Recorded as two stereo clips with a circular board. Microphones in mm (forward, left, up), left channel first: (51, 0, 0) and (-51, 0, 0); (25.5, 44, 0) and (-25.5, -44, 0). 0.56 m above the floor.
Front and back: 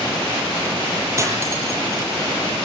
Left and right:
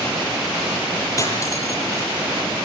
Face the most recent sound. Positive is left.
turn(degrees=120)